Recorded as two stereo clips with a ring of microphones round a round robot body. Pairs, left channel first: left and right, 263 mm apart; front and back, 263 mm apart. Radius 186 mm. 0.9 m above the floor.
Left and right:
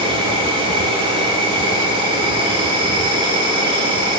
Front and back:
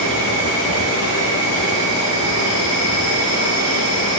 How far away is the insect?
About 1.8 m.